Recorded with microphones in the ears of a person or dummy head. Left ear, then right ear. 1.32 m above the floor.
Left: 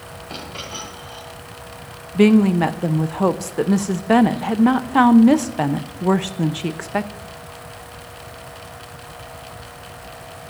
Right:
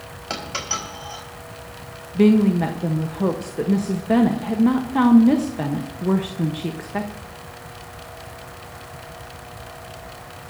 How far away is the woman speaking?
About 0.7 m.